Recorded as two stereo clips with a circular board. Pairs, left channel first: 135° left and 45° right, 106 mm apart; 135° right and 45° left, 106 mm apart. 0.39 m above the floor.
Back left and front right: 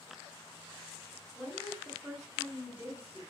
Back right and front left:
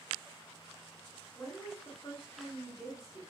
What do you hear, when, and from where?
1.4 s a woman speaking: 105° right, 0.9 m